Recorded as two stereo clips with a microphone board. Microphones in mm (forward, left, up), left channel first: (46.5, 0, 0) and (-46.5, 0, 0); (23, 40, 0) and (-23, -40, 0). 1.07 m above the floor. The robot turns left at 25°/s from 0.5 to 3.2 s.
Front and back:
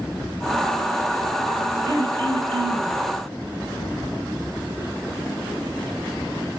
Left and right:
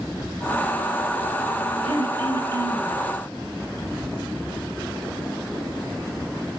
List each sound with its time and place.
1.9 s throat clearing: 140° right, 5.5 m; by 2.9 s 170° right, 5.5 m